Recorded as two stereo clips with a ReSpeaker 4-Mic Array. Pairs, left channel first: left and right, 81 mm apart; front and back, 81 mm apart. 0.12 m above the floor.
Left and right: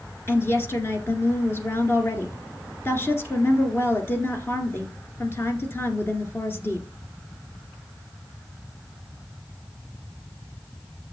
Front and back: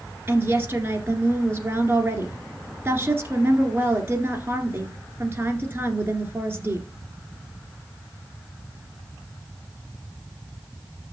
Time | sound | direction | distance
0.3 | a woman speaking | 130° left | 2.0 m